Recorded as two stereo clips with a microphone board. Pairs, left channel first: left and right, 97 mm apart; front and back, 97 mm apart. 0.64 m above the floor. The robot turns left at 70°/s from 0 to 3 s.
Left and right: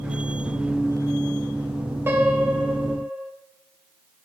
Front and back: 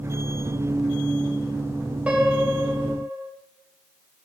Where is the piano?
120° right, 1.3 m; by 3.3 s 175° left, 1.3 m.